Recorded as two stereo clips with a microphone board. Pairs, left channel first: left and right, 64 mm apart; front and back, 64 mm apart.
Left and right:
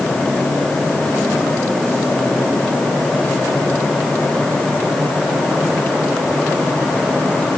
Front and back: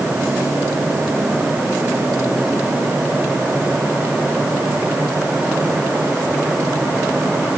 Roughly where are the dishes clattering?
I don't hear dishes clattering.